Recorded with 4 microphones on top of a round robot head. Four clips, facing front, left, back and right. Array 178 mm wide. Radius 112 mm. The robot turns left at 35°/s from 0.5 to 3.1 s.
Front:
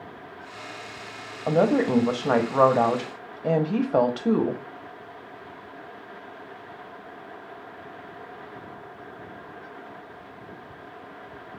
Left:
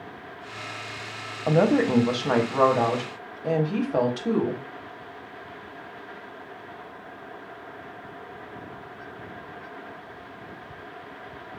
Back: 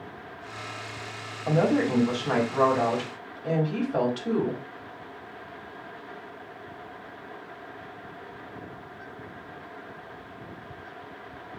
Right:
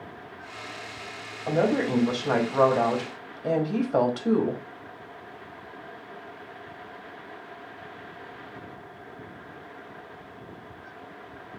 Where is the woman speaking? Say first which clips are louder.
Left 3 dB, front 3 dB; 45° left, 1.0 m; by 4.6 s 10° right, 1.0 m.